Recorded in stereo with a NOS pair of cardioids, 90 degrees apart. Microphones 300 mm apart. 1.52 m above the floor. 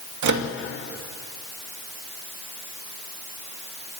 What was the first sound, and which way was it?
A microwave, 70° right.